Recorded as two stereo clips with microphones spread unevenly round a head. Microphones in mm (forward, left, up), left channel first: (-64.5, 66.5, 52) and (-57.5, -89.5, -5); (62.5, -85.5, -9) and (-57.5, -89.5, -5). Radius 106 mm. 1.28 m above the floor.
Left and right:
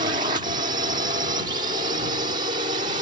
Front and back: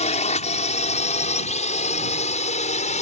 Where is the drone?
20° right.